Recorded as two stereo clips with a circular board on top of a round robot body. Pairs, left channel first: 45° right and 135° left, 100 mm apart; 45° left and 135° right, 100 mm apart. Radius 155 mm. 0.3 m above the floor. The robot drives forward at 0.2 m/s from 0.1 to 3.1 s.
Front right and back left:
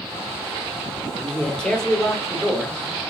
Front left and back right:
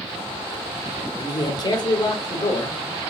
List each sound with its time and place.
1.1 s a man speaking: 30° left, 1.2 m; by 2.8 s 45° left, 1.1 m